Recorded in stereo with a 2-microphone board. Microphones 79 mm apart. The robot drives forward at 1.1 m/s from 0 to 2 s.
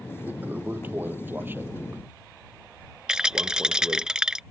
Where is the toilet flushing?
25° right (ahead or behind); by 4.1 s 30° right (ahead or behind).